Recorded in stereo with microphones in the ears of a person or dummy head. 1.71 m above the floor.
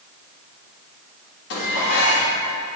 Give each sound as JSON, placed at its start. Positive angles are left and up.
{"t": 1.5, "sound": "dishes clattering", "side_deg": 60, "distance_m": 1.7}